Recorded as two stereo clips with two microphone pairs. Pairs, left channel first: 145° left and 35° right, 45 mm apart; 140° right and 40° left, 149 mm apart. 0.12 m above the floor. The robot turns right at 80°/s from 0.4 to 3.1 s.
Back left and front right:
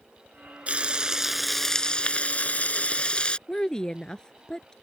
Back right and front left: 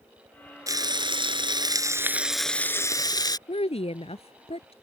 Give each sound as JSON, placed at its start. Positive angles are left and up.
{"t": 0.7, "sound": "frying", "azimuth_deg": -10}
{"t": 3.5, "sound": "a woman speaking", "azimuth_deg": -150}